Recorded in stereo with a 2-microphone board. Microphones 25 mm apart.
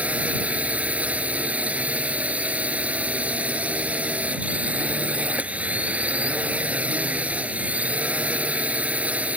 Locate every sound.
0.0 s a drone: 75° right (ahead or behind)